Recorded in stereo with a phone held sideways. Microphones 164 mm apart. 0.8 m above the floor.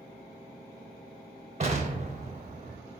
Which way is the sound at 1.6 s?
40° right (ahead or behind).